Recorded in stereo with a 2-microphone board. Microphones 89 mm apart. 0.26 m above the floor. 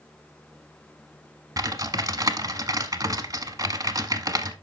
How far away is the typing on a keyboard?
About 1.0 m.